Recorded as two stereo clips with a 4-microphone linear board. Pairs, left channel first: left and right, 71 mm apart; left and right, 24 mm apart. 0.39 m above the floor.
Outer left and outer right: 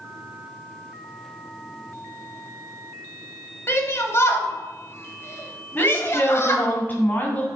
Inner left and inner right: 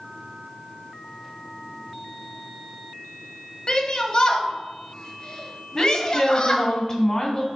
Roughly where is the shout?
Left.